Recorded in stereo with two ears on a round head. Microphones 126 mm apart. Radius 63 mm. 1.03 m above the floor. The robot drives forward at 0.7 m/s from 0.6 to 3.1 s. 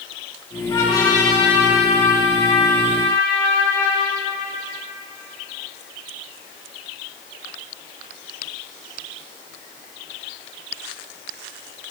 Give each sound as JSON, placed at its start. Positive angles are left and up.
{"t": 0.7, "sound": "a trumpet", "side_deg": 35, "distance_m": 3.5}